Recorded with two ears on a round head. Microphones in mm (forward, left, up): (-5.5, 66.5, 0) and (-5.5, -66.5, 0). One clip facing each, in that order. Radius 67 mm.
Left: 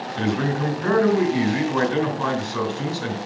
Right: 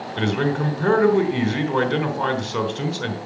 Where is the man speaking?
70° right (ahead or behind), 3.5 m.